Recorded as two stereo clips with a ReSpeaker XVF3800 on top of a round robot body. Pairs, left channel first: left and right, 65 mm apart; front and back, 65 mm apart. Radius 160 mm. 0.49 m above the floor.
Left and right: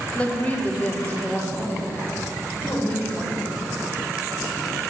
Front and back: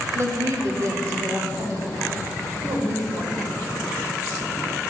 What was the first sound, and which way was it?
A woman speaking, 155° left.